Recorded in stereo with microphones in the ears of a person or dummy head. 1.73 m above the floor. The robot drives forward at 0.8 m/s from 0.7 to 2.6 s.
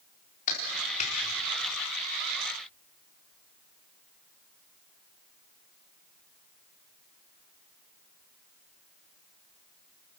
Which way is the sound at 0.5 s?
40° left (ahead or behind).